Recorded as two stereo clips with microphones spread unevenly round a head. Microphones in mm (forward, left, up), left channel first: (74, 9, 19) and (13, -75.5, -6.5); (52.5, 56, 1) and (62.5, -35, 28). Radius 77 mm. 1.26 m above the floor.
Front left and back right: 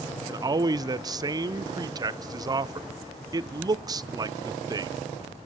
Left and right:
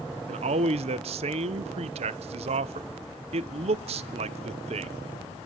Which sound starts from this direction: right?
A man speaking, at 0.3 s.